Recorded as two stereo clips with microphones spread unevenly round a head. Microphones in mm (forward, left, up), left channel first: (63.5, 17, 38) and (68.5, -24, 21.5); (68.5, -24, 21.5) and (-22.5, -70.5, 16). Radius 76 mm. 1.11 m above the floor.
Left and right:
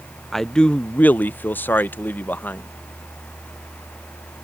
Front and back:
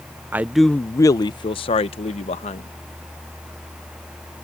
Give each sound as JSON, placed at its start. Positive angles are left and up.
{"t": 0.3, "sound": "a man speaking", "azimuth_deg": -130}